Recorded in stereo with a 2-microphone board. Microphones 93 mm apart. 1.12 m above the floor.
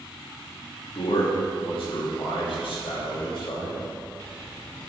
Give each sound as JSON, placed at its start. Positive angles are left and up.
{"t": 0.9, "sound": "a man speaking", "side_deg": 80, "distance_m": 1.8}